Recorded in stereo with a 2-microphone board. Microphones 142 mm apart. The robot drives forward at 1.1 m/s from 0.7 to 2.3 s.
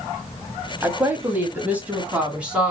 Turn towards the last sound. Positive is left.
turn(degrees=-10)  # may be behind; listen again after turning